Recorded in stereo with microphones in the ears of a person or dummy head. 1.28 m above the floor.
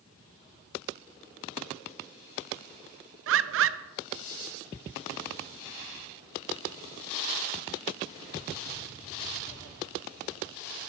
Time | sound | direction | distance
3.3 | a bird | 65° right (ahead or behind) | 0.5 m